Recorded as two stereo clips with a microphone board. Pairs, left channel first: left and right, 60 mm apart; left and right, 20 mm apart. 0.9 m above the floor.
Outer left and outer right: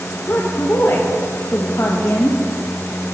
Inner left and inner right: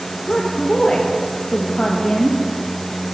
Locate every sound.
0.3 s a woman speaking: 40° left (ahead or behind), 0.6 m